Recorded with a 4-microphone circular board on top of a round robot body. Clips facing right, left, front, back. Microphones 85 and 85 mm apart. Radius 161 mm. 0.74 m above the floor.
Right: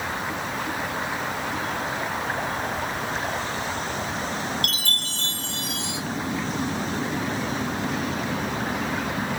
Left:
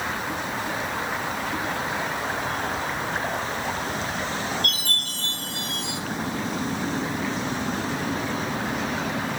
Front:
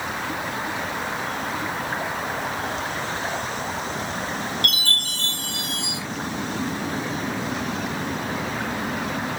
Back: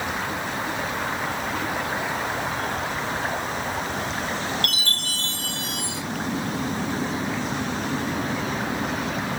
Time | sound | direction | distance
4.6 | a chime | 70° right | 2 m